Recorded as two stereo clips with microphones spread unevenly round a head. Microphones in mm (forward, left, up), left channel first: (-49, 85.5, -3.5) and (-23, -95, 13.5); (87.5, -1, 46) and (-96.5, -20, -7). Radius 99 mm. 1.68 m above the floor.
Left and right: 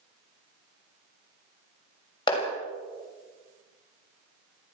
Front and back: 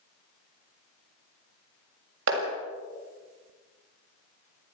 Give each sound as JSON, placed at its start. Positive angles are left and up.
{"t": 2.3, "sound": "a clap", "azimuth_deg": 165, "distance_m": 7.0}